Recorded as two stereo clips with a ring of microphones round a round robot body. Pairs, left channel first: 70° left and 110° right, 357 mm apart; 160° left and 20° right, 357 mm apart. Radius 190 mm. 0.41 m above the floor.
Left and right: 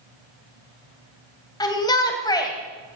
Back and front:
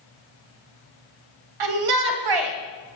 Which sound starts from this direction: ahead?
A shout, at 1.6 s.